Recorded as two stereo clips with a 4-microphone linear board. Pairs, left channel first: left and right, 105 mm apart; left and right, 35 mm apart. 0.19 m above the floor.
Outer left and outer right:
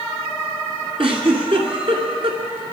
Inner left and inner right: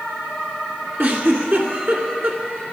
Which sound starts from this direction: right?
A giggle, at 1.0 s.